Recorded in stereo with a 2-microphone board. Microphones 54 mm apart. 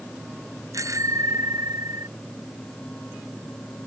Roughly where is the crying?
I don't hear crying.